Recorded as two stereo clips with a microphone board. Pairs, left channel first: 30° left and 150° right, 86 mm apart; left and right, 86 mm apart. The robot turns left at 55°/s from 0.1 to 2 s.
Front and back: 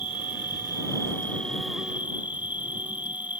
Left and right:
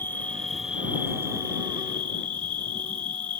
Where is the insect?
25° left; by 3.4 s 80° right.